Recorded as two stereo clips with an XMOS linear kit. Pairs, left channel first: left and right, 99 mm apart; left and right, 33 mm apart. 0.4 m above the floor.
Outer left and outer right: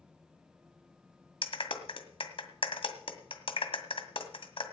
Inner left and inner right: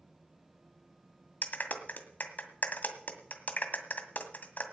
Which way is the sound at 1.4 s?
65° left (ahead or behind).